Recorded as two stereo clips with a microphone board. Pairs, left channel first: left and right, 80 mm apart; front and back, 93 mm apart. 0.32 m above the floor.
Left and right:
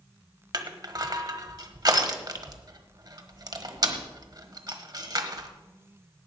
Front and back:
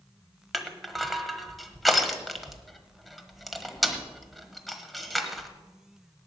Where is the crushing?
90° right, 1.2 m.